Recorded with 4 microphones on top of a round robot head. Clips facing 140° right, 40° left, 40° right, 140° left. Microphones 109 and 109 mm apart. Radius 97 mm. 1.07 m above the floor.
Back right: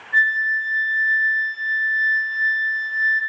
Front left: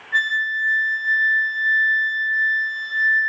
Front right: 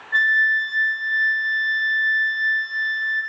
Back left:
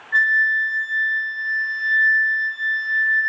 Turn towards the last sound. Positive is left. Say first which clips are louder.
# back right 3 dB, back left 1 dB
turn(degrees=40)